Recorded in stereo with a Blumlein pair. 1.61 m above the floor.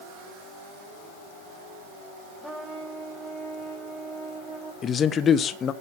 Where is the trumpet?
5° right, 3.5 m.